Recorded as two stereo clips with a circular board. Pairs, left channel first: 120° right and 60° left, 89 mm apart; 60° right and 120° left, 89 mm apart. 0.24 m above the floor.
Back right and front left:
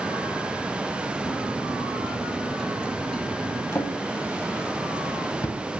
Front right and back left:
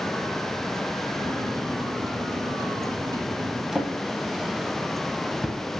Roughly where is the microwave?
Behind left.